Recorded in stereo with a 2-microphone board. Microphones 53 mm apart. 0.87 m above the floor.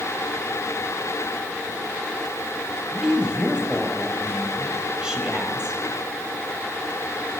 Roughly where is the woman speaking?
Centre.